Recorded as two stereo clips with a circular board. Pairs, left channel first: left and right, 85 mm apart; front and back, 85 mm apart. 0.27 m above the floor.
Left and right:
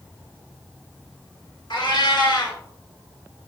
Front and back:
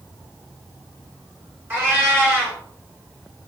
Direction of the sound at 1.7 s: 115° left.